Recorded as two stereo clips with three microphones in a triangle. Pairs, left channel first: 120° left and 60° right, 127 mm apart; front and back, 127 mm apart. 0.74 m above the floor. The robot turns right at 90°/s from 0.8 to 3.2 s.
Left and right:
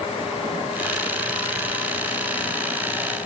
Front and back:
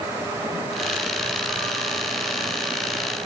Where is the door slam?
I don't hear a door slam.